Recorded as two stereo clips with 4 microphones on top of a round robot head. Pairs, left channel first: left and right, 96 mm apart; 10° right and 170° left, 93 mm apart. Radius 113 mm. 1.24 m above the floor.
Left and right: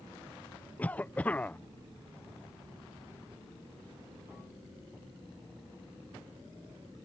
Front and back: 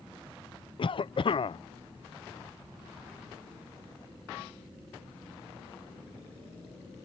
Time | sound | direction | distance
0.8 | a cough | 15° left | ?